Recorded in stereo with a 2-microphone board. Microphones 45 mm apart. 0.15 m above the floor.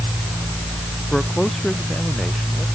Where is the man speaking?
10° left (ahead or behind).